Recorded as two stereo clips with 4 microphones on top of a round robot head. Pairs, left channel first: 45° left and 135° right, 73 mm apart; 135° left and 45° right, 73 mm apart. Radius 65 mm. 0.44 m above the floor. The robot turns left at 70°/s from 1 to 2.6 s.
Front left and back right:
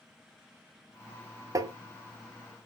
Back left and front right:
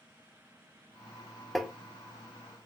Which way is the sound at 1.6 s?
130° right.